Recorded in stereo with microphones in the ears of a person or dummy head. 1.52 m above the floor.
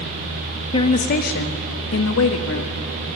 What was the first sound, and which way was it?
A woman speaking, 35° left (ahead or behind).